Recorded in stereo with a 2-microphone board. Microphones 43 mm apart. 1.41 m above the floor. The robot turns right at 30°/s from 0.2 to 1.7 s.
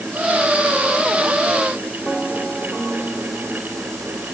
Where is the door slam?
No door slam in this recording.